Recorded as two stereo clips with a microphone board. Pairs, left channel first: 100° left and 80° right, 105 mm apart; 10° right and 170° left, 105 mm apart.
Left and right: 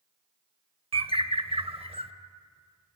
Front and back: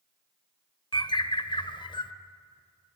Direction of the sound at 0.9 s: 55° right.